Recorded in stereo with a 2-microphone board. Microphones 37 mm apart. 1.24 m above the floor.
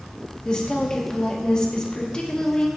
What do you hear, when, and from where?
0.5 s a woman speaking: 25° left (ahead or behind), 1.5 m